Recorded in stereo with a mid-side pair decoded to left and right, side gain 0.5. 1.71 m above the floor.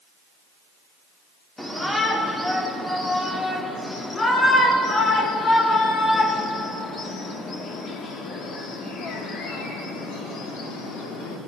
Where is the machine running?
No machine running in this recording.